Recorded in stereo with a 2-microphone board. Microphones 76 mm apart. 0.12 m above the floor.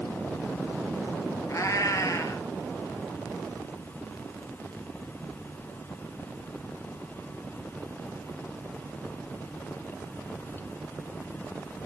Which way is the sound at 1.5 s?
50° left (ahead or behind).